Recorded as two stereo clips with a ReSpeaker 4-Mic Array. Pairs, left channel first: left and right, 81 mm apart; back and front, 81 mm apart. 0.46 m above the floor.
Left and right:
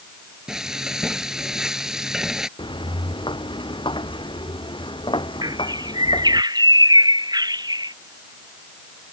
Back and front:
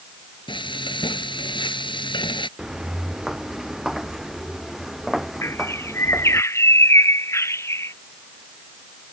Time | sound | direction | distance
0.5 | frying | 175° right | ?
2.6 | footsteps | 85° left | ?
5.4 | a bird | 125° right | ?